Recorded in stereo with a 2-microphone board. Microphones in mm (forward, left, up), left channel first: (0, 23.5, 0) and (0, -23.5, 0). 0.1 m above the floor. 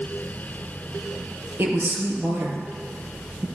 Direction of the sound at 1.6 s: 55° right (ahead or behind).